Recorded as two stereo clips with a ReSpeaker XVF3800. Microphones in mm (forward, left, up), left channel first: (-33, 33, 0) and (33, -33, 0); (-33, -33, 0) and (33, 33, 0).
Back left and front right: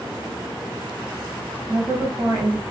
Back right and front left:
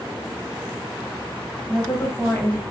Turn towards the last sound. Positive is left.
turn(degrees=-85)